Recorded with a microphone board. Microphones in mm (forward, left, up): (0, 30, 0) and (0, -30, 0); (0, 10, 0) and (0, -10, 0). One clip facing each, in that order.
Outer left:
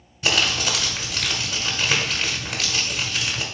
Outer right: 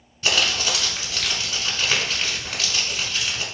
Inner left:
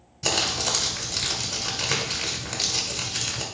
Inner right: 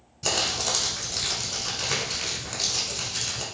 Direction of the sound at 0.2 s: 10° left (ahead or behind).